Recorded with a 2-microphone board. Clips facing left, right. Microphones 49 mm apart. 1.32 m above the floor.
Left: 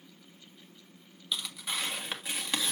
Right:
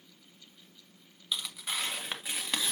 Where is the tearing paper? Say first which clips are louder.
Even; 5° right (ahead or behind), 1.5 m.